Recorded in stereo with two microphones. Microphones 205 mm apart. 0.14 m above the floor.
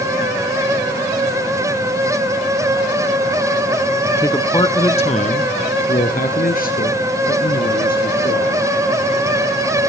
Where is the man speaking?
10° left (ahead or behind), 1.1 m; by 8.7 s 50° left (ahead or behind), 3.5 m.